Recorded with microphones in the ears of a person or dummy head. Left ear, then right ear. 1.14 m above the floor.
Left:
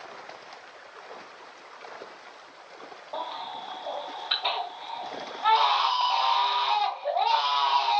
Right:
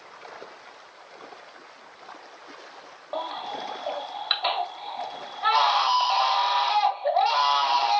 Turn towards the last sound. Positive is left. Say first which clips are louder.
# right 3 dB
turn(degrees=-60)  # may be behind; listen again after turning